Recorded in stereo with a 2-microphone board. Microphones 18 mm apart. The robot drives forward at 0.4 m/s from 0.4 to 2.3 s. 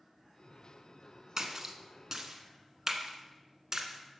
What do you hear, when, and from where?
1.4 s a splash: 30° right (ahead or behind), 1.2 m; by 4.2 s 25° right (ahead or behind), 1.4 m